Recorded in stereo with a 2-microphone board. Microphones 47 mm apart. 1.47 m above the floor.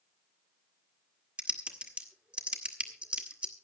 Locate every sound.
1.4 s typing on a keyboard: 25° right (ahead or behind), 1.8 m